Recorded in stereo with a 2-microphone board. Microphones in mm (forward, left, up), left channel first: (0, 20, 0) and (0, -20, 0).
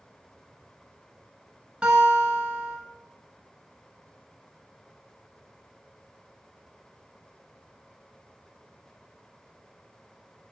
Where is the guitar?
25° right (ahead or behind), 0.7 m.